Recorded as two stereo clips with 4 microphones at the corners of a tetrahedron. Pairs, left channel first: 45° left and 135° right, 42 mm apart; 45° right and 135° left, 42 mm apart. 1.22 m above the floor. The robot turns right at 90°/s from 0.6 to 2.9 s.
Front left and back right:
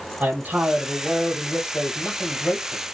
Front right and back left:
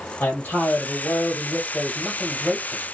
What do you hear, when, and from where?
0.2 s a man speaking: 80° right, 1.5 m; by 2.8 s 120° left, 1.5 m